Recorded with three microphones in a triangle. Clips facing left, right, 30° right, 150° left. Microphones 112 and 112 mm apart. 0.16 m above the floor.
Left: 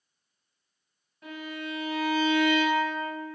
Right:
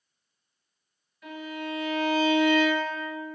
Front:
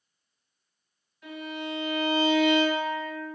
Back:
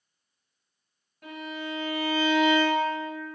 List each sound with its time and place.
1.2 s a violin: 135° left, 1.4 m